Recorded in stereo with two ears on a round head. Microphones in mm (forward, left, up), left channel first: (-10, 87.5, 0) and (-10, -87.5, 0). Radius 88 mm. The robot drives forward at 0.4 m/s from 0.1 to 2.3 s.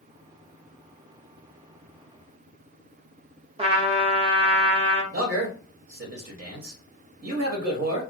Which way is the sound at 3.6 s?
30° right (ahead or behind).